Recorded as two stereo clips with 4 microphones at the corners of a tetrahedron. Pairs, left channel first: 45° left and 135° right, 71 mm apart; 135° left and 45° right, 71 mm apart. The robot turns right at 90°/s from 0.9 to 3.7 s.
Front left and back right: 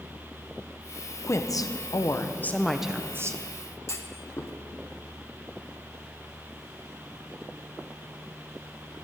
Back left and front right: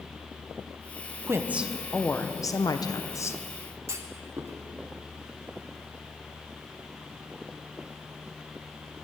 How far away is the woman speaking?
About 0.8 m.